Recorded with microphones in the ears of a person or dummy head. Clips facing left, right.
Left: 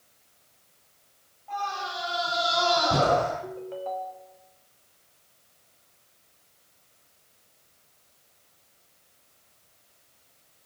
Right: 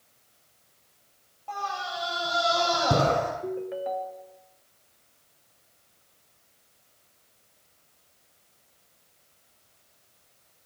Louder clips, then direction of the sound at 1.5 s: Left 1 dB; 80° right.